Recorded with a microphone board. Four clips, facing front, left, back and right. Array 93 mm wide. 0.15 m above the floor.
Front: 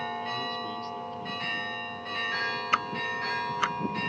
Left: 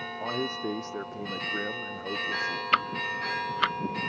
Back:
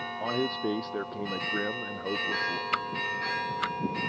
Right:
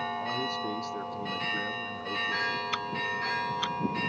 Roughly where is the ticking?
Ahead left.